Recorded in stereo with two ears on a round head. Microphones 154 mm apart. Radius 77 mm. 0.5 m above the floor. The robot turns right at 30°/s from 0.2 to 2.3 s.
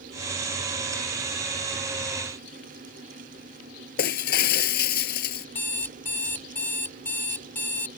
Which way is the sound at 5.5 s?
10° left (ahead or behind).